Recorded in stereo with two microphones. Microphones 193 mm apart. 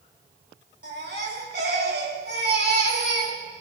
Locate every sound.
0.8 s a baby crying: 65° right (ahead or behind), 4.5 m